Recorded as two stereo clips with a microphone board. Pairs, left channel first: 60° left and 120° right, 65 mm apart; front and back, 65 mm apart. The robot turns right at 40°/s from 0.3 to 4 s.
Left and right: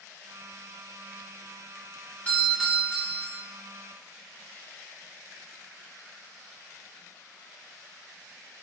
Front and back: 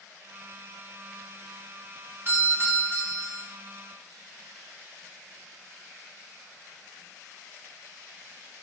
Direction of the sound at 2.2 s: 130° left.